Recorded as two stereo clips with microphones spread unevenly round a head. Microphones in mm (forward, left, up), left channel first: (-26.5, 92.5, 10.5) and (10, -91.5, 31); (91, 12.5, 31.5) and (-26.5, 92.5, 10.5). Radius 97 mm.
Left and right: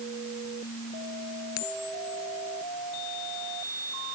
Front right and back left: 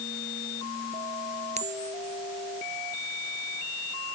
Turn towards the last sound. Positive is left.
turn(degrees=105)